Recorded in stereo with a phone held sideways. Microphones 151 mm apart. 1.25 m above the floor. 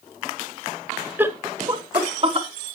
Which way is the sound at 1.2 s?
15° right (ahead or behind).